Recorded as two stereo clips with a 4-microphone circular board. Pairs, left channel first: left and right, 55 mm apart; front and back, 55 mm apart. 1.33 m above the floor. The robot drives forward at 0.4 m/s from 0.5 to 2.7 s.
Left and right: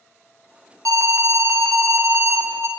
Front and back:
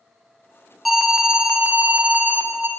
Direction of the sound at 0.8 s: 90° right.